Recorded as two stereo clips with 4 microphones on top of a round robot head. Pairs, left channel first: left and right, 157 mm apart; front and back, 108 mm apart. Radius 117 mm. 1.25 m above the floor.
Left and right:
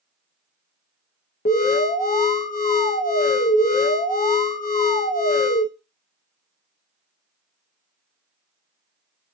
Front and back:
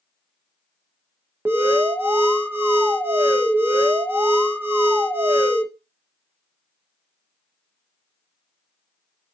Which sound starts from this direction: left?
An alarm, at 1.4 s.